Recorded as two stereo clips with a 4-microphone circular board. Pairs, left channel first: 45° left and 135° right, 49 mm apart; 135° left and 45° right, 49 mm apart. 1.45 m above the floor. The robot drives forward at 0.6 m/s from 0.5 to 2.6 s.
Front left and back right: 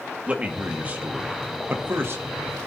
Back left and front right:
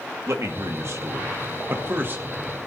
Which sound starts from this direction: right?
A man speaking, at 0.3 s.